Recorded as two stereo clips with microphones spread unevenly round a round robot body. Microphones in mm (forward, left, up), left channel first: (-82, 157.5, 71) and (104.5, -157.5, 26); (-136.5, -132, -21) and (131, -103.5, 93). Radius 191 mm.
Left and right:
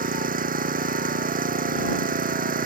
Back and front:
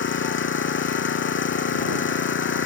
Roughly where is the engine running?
Behind right.